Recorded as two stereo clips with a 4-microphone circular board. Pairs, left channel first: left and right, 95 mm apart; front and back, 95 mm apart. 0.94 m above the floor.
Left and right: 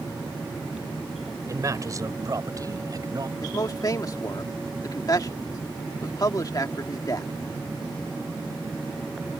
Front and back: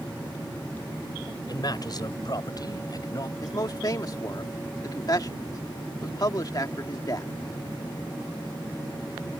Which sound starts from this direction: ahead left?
A man speaking, at 3.4 s.